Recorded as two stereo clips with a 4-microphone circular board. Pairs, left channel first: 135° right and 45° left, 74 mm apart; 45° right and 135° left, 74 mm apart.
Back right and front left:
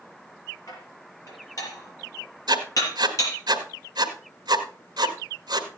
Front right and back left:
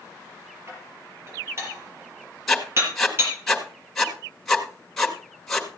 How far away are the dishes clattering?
About 5.5 m.